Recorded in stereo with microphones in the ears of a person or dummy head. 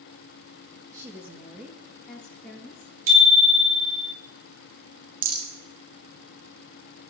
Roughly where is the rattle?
Right.